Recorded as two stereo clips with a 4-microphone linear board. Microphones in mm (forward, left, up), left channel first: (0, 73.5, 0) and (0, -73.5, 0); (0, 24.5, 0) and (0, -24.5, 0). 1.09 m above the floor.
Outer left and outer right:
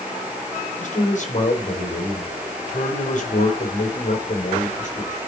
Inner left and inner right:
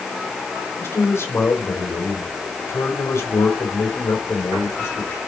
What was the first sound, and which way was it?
A man speaking, 60° left (ahead or behind).